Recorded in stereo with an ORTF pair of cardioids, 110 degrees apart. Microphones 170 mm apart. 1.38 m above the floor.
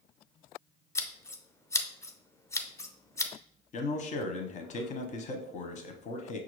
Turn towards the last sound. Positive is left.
turn(degrees=45)